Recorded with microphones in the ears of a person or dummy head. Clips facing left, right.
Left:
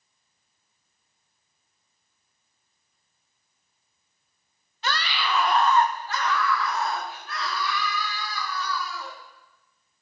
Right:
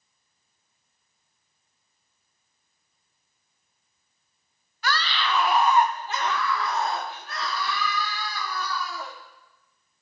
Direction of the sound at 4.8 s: 20° left (ahead or behind).